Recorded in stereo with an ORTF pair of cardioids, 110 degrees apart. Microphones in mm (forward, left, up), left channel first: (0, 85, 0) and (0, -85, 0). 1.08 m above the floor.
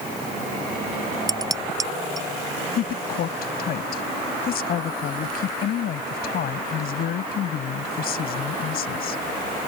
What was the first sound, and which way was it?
Dishes clattering, 20° right.